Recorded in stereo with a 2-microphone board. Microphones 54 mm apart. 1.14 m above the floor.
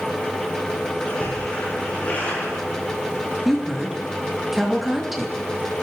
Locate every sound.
1.1 s a splash: 30° left (ahead or behind), 6.5 m
3.5 s a woman speaking: 5° right (ahead or behind), 2 m